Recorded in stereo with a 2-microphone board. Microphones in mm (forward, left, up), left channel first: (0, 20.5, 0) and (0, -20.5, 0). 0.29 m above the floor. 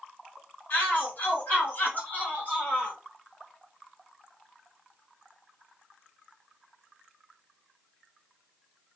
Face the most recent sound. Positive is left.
turn(degrees=35)  # may be behind; listen again after turning